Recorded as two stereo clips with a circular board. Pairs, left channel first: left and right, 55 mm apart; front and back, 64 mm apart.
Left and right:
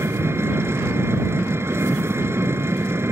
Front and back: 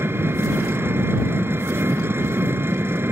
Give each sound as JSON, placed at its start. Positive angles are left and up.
{"t": 0.0, "sound": "an engine running", "azimuth_deg": -130}